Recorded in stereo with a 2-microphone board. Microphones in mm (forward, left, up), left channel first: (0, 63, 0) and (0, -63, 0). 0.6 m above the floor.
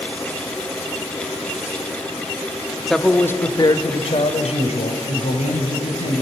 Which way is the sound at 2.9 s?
Centre (ahead or behind).